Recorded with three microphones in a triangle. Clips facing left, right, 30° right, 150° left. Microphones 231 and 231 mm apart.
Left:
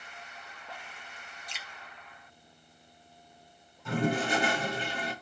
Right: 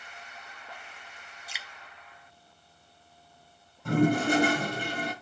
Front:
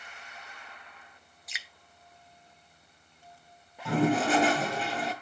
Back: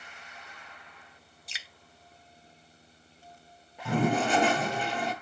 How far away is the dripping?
About 1.0 m.